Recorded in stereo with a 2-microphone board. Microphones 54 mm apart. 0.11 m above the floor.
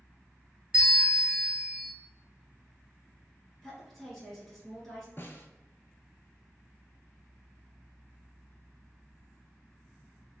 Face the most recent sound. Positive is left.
turn(degrees=45)  # may be behind; listen again after turning